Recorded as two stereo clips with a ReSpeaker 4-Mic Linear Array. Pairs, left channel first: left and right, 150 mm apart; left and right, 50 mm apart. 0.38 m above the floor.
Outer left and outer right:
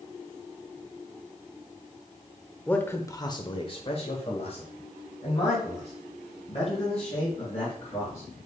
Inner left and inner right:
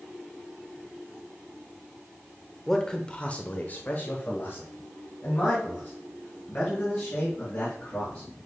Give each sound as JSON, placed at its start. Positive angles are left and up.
{"t": 2.7, "sound": "a man speaking", "side_deg": 10, "distance_m": 1.0}